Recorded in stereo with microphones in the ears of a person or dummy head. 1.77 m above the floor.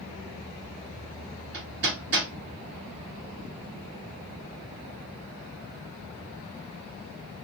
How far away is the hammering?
About 1.9 m.